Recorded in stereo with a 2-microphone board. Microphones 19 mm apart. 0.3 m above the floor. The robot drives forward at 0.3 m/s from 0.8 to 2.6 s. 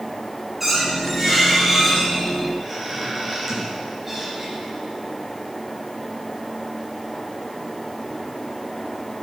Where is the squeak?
5° right (ahead or behind), 3 m.